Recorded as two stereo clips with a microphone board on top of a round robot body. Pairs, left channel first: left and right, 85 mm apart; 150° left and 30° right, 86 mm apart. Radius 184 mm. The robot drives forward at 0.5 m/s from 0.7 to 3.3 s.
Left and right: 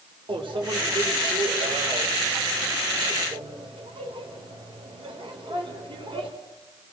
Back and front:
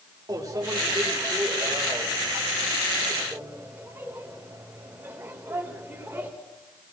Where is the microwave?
80° right, 4 m; by 6.3 s 100° right, 4 m.